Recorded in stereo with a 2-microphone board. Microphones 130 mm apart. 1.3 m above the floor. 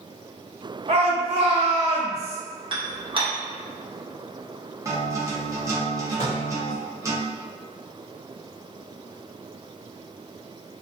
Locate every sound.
0.9 s a shout: 50° right (ahead or behind), 0.7 m
2.7 s dishes clattering: 40° right (ahead or behind), 0.6 m
4.8 s a guitar: 25° right (ahead or behind), 0.7 m
6.2 s a microwave: 60° left (ahead or behind), 0.9 m